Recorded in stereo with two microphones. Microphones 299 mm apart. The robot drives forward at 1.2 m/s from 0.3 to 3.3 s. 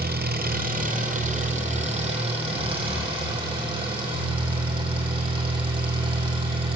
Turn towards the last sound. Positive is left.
turn(degrees=-15)  # may be behind; listen again after turning